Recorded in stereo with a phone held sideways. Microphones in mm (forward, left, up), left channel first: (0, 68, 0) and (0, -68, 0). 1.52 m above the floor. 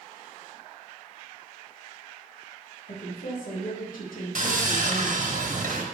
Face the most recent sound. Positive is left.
turn(degrees=-65)  # may be behind; listen again after turning